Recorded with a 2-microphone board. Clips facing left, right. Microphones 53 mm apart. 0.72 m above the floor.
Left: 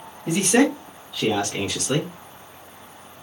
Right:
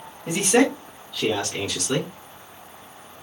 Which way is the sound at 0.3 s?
5° right (ahead or behind).